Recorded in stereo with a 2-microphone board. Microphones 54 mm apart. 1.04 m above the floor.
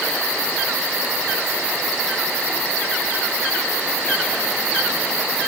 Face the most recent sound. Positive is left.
No sound to turn to.